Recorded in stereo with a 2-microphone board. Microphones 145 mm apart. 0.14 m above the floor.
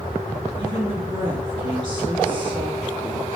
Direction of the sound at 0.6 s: 35° right (ahead or behind).